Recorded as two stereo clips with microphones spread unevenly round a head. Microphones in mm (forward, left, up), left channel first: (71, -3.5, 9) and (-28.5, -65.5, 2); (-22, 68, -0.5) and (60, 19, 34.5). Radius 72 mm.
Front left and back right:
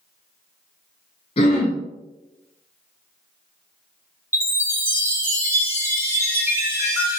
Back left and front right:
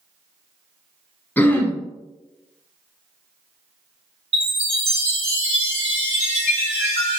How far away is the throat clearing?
About 0.6 m.